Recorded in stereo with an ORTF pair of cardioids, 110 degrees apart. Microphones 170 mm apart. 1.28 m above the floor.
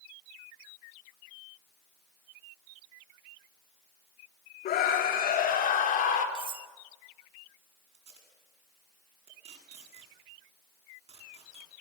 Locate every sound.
4.7 s a scream: 65° left, 3.5 m; by 6.2 s 55° left, 4.5 m
6.3 s cutlery clinking: 30° right, 1.6 m
7.9 s tape being pulled: 40° right, 8.5 m